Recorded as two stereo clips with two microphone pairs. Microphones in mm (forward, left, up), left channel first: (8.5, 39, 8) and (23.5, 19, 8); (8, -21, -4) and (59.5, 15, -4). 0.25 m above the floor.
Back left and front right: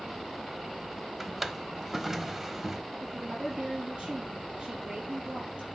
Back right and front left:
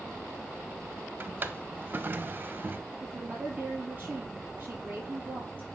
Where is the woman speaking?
25° right, 5.5 m.